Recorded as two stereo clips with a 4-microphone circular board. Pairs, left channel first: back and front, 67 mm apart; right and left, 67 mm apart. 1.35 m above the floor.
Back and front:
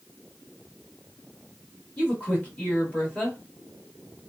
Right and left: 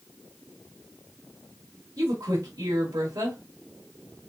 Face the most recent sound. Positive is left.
turn(degrees=110)